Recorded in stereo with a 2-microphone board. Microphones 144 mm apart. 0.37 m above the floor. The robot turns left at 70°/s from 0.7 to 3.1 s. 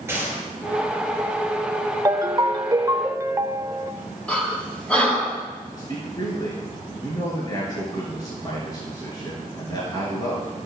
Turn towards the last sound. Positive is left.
turn(degrees=30)  # may be behind; listen again after turning